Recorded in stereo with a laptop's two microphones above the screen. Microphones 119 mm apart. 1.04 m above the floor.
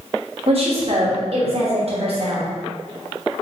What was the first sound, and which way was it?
A woman speaking, 55° right (ahead or behind).